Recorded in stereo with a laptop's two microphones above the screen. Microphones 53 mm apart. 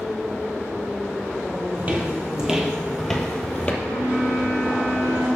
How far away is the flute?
About 3 m.